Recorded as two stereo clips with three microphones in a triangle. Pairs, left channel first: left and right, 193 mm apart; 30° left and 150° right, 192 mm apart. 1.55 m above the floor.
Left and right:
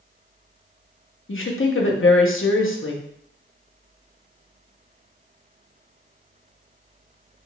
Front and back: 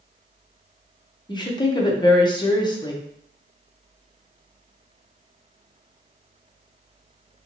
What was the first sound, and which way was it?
A woman speaking, 95° left.